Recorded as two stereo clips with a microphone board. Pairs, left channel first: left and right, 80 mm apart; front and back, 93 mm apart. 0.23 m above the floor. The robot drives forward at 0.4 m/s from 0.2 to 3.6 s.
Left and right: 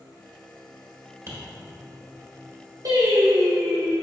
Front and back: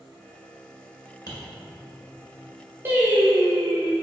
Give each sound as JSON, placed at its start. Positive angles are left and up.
{"t": 1.3, "sound": "tapping", "azimuth_deg": -40, "distance_m": 1.3}
{"t": 2.9, "sound": "singing", "azimuth_deg": -115, "distance_m": 1.0}